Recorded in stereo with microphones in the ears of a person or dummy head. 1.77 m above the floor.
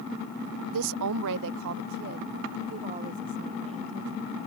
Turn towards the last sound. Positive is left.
turn(degrees=-20)  # may be behind; listen again after turning